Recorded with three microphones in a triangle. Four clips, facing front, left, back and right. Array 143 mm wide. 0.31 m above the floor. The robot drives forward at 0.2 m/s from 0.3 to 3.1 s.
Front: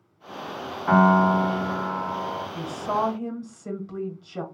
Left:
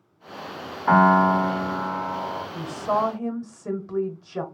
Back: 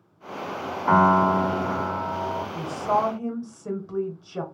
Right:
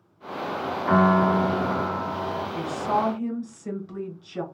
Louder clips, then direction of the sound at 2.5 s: Left 1 dB, back 3 dB; 115° left.